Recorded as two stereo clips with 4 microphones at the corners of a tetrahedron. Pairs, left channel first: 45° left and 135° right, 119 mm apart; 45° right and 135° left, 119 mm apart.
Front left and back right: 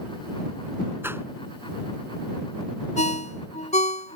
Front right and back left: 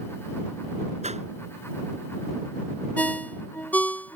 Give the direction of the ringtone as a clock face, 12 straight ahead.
11 o'clock.